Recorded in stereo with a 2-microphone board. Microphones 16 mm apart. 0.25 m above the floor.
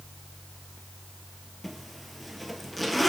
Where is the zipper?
Centre (ahead or behind), 1.1 m.